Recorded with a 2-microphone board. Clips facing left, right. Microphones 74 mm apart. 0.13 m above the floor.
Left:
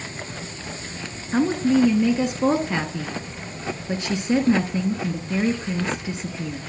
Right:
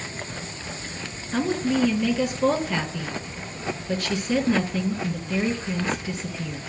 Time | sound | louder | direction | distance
1.3 | a woman speaking | left 4 dB | 25° left (ahead or behind) | 1.3 m